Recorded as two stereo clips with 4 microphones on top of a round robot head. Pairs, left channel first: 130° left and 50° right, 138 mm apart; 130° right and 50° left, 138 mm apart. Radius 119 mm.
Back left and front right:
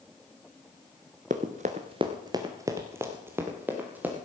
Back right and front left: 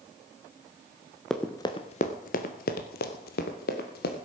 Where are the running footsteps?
45° right, 0.6 m; by 4.2 s 125° right, 1.8 m.